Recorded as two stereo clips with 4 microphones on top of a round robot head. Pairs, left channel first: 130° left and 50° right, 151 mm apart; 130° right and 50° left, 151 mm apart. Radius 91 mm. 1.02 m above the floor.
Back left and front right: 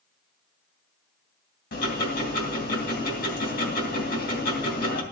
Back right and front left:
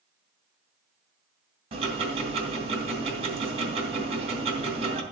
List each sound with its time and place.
1.7 s ticking: 100° left, 2.5 m